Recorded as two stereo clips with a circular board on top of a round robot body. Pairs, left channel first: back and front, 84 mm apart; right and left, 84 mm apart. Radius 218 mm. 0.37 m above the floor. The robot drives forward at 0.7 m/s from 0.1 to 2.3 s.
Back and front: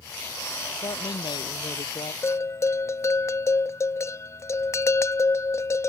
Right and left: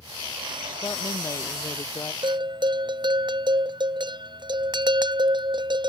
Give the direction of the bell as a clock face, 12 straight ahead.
8 o'clock.